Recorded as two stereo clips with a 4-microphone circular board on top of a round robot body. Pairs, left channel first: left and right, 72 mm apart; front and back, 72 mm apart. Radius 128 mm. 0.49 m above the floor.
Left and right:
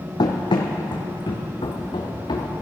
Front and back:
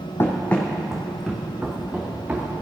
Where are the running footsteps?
60° left, 1.3 m; by 2.5 s 110° left, 3.5 m.